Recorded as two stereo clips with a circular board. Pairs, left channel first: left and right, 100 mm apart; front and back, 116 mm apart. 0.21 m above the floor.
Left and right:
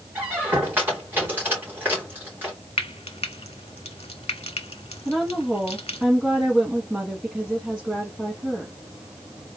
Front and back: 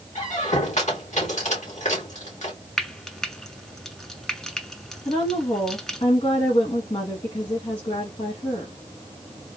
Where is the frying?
85° left, 0.7 m.